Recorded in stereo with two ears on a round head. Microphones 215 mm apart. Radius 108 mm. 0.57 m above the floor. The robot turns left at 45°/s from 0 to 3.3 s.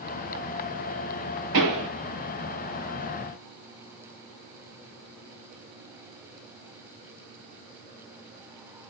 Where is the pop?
75° right (ahead or behind), 6.5 m; by 1.9 s 85° right, 6.5 m.